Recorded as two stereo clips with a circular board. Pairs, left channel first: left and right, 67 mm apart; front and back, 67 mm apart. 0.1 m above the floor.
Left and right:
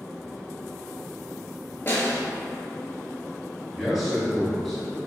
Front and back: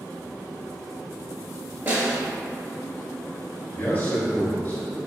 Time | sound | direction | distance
1.9 | a snare drum | 135° left | 0.8 m
3.7 | a man speaking | straight ahead | 1.4 m